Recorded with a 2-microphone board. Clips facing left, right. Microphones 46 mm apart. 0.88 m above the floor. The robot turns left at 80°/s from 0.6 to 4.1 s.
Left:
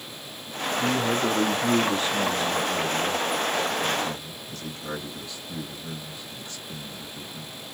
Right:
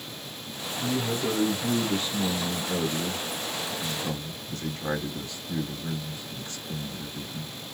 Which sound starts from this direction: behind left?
A man speaking, at 0.8 s.